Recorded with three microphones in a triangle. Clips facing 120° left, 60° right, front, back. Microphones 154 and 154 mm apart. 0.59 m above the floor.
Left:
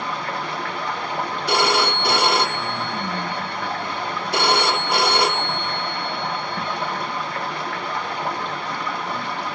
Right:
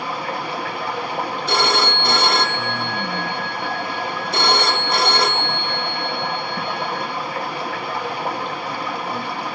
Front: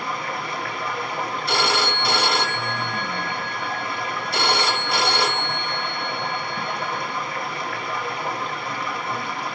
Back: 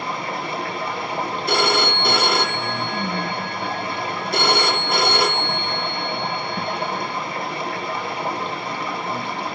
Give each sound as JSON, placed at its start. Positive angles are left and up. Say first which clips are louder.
{"t": 0.0, "sound": "running water", "louder": "right 2 dB, back 2 dB", "azimuth_deg": -135, "distance_m": 0.7}
{"t": 1.5, "sound": "a phone ringing", "louder": "left 1 dB, back 3 dB", "azimuth_deg": -165, "distance_m": 0.9}